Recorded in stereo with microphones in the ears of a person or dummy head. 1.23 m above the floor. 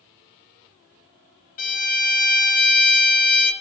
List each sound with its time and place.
1.6 s a violin: 45° left (ahead or behind), 1.3 m